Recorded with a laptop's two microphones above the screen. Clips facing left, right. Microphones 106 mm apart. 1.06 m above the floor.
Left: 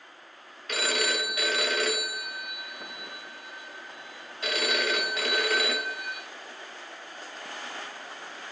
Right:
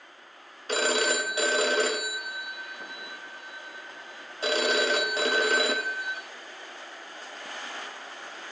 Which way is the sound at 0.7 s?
30° right (ahead or behind).